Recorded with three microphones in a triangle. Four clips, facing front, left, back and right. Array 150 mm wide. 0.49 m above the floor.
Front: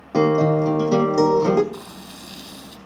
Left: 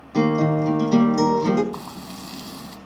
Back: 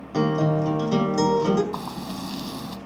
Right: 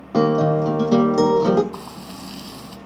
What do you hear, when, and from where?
0.1 s a guitar: 55° right, 3 m
1.7 s frying: straight behind, 3 m